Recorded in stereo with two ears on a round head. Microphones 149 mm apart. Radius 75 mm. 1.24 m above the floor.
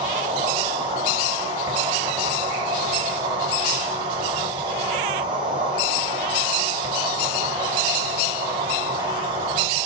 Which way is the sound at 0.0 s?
30° right (ahead or behind).